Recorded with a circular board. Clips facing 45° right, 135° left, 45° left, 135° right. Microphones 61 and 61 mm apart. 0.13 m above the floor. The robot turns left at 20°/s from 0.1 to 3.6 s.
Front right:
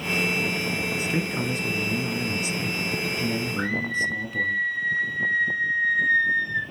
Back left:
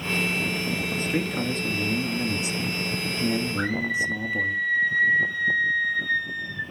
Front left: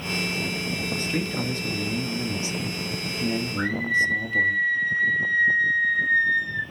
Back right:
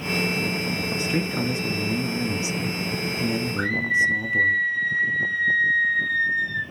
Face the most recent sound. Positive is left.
turn(degrees=-110)